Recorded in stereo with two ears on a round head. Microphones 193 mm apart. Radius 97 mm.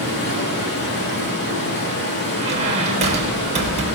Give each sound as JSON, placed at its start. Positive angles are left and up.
{"t": 0.0, "sound": "running water", "side_deg": 55, "distance_m": 3.5}
{"t": 2.4, "sound": "a squeak", "side_deg": -30, "distance_m": 2.0}